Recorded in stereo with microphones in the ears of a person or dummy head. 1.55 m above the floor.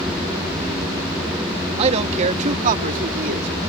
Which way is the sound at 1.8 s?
35° right (ahead or behind).